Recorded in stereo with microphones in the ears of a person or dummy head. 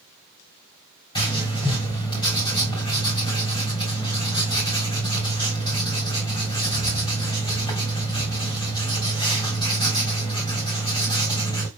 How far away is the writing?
About 3 m.